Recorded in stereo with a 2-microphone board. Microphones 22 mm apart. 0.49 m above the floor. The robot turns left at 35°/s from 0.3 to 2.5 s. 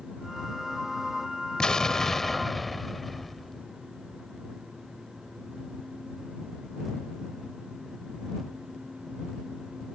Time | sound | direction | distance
1.6 | an explosion | 35° left | ?